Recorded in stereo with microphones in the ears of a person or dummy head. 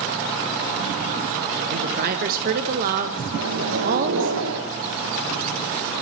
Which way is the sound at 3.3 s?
60° right (ahead or behind).